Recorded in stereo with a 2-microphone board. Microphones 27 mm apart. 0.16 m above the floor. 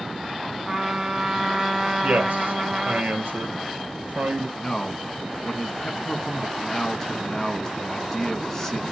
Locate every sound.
0.7 s a trumpet: 20° right (ahead or behind), 0.7 m
2.0 s a man speaking: 65° right (ahead or behind), 3 m
4.6 s a man speaking: 20° left (ahead or behind), 1.2 m